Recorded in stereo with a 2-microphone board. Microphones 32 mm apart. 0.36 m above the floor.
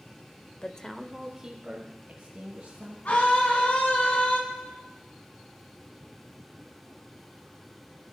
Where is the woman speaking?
30° left (ahead or behind), 0.9 m; by 3.0 s 40° right (ahead or behind), 3 m.